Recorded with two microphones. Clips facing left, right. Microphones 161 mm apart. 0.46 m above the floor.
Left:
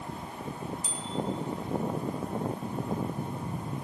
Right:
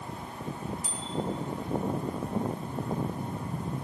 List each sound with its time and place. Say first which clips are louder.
0.8 s a bicycle bell: even; 25° left (ahead or behind), 2.5 m